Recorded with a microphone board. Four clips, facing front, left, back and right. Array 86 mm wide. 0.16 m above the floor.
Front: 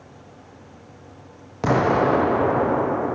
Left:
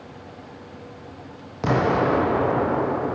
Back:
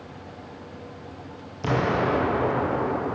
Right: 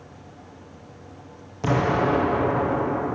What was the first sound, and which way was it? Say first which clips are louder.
An explosion: left 1 dB, front 5 dB; 20° left.